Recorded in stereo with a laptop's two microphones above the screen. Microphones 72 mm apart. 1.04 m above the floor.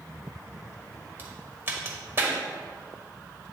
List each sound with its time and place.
1.2 s a crack: 30° right (ahead or behind), 1.3 m